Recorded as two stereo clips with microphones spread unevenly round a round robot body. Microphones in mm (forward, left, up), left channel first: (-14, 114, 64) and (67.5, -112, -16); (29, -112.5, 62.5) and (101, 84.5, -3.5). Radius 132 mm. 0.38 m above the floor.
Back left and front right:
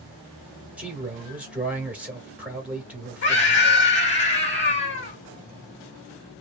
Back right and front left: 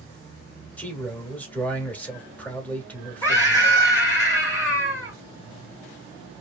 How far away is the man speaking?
About 1.3 m.